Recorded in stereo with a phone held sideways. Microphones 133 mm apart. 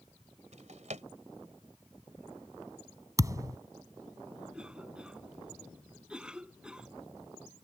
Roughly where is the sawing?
No sawing in this recording.